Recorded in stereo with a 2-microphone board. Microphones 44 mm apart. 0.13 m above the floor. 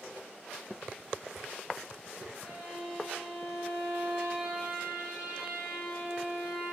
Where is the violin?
30° right (ahead or behind), 7.5 m.